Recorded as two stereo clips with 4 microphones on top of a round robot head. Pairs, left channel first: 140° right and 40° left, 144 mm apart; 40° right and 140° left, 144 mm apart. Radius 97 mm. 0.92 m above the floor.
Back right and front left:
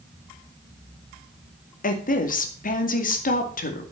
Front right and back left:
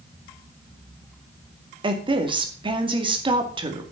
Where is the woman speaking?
165° right, 2.5 m.